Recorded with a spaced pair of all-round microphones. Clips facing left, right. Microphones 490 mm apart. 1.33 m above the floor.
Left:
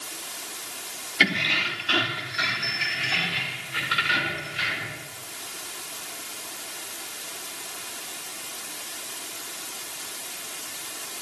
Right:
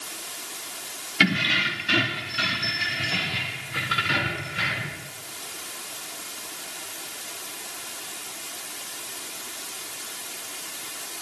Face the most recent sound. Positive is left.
turn(degrees=-70)  # may be behind; listen again after turning